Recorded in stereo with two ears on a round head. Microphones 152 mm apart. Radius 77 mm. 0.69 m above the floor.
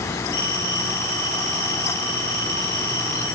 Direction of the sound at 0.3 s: 60° left (ahead or behind).